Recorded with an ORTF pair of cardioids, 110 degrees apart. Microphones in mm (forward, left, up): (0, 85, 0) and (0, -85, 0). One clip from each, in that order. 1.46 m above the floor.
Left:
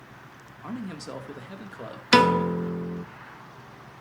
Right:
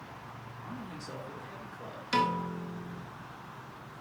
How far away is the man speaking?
About 2.5 m.